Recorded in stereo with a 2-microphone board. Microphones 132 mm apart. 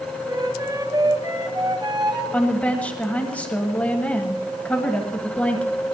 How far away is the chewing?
No chewing in this recording.